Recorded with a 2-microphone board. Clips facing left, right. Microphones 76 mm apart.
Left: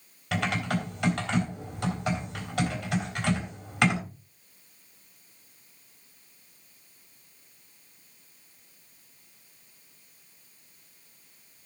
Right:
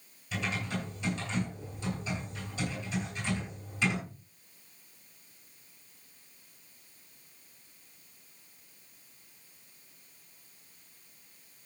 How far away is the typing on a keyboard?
About 3 m.